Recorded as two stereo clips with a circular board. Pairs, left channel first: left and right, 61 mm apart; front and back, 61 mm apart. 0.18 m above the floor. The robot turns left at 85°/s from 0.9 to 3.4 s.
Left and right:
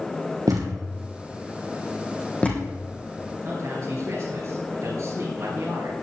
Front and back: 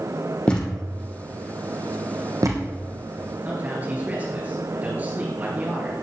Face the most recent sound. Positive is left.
turn(degrees=-120)